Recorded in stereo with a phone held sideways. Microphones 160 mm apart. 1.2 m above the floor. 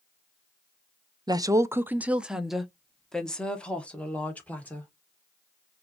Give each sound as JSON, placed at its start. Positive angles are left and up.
{"t": 1.3, "sound": "a woman speaking", "side_deg": -25, "distance_m": 0.5}